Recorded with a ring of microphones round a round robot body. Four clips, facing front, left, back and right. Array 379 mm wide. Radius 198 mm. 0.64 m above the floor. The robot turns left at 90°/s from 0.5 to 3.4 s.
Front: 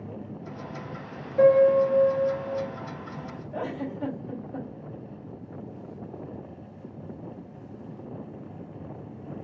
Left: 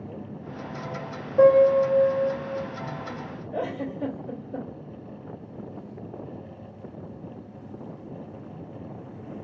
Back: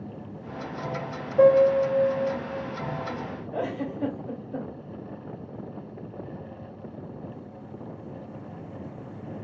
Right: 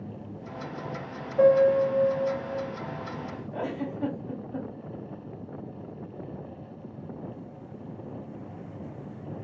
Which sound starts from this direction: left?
A piano, at 1.4 s.